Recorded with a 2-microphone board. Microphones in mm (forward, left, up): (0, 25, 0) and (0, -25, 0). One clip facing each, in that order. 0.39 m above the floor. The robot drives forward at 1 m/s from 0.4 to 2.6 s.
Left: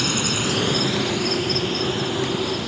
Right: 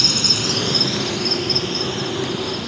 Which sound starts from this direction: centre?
An insect, at 0.0 s.